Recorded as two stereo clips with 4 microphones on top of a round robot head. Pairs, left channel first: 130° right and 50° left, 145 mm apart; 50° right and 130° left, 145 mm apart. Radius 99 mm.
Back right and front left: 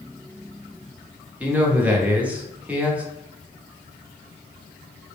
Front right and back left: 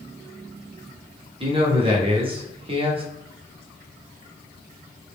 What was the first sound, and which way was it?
A man speaking, 125° left.